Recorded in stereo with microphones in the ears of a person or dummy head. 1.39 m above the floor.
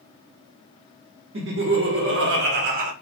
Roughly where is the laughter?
Right.